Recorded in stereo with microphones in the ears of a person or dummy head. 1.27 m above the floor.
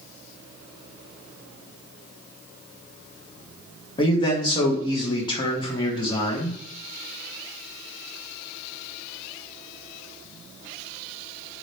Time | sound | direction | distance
4.0 | a man speaking | 25° left (ahead or behind) | 0.7 m